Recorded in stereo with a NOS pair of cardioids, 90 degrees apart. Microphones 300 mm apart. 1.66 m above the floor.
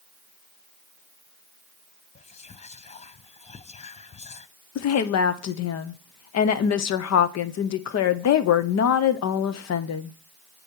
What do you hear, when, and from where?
2.1 s whispering: 20° left, 0.6 m
4.8 s a woman speaking: 60° left, 0.9 m